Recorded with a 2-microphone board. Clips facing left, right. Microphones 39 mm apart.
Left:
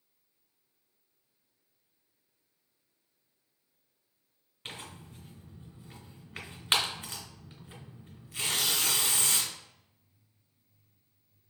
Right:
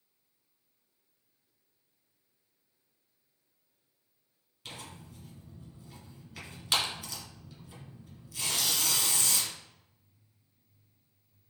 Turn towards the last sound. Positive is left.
turn(degrees=40)  # may be behind; listen again after turning